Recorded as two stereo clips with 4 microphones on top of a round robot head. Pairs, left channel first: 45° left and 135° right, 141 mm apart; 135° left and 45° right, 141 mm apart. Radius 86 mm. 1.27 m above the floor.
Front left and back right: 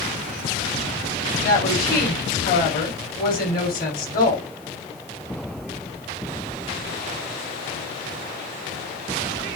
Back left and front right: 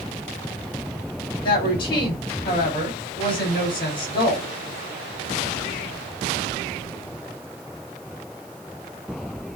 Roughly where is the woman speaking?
Left.